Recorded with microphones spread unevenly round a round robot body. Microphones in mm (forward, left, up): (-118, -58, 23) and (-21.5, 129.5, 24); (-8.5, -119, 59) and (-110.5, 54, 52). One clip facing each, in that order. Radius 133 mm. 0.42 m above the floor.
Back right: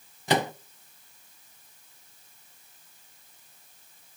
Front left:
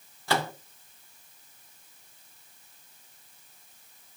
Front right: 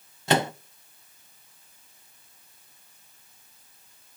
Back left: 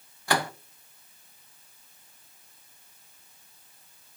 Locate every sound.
0.3 s a microwave: 85° right, 0.6 m